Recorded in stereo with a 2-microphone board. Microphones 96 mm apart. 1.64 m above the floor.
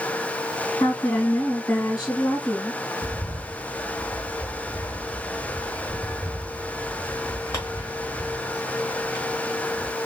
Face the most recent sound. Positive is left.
turn(degrees=30)  # may be behind; listen again after turning